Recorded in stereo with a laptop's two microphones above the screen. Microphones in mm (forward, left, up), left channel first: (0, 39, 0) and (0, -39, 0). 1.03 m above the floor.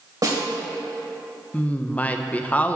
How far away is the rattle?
No rattle in this recording.